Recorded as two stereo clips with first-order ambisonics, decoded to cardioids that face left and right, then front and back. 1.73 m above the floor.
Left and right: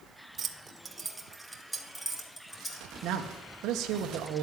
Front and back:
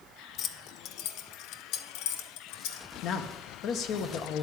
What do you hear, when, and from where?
0.4 s keys jangling: 40° right, 0.8 m; by 2.9 s 5° left, 1.8 m
3.0 s a man speaking: 45° right, 1.4 m